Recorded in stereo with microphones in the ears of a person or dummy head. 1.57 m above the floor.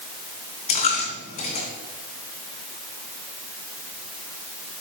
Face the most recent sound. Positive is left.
turn(degrees=45)  # may be behind; listen again after turning